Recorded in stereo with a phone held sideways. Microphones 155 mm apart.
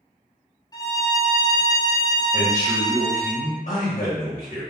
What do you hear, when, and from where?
0.7 s a violin: 25° left (ahead or behind), 0.6 m
2.3 s a man speaking: 70° left (ahead or behind), 1.0 m